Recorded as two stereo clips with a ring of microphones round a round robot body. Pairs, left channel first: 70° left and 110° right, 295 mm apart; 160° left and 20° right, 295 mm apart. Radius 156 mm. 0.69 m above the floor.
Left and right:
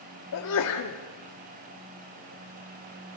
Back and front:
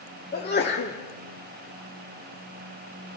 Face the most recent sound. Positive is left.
turn(degrees=100)